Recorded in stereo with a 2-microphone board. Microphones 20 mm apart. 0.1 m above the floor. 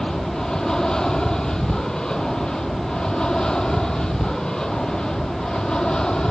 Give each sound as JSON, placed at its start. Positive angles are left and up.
{"t": 0.0, "sound": "an aircraft", "side_deg": 35}